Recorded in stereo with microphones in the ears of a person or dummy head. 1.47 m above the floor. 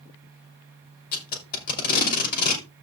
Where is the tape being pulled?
50° left (ahead or behind), 2.5 m.